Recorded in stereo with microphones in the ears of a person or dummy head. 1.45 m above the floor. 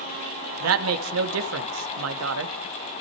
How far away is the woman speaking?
About 2 m.